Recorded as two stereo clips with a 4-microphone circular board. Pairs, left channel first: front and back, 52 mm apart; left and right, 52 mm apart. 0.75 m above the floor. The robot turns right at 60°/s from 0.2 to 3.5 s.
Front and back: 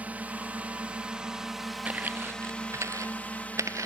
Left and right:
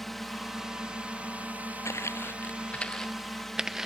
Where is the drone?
175° left; by 3.9 s 10° left.